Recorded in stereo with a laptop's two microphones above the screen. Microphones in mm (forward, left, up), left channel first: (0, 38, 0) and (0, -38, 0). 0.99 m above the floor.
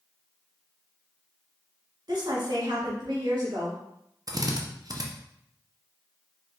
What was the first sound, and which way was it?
A woman speaking, 65° right (ahead or behind).